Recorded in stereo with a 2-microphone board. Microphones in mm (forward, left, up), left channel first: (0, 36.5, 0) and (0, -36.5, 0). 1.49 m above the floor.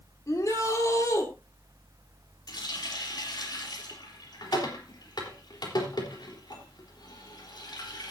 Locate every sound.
0.3 s a shout: 50° left (ahead or behind), 3.5 m
2.5 s a running tap: 80° left, 3.5 m